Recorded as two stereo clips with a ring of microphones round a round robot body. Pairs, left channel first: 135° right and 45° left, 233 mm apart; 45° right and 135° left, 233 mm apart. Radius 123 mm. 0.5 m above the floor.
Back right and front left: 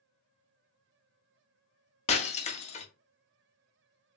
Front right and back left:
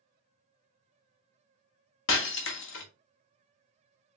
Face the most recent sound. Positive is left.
turn(degrees=-75)